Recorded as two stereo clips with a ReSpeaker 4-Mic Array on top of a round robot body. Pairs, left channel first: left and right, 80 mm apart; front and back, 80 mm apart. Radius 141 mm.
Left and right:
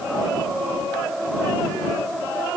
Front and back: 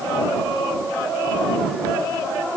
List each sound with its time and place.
Only background noise.